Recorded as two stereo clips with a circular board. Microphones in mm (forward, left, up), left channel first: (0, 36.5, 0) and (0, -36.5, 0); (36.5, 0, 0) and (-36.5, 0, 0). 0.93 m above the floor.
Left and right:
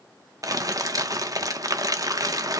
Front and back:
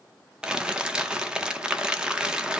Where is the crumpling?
105° right, 0.7 m.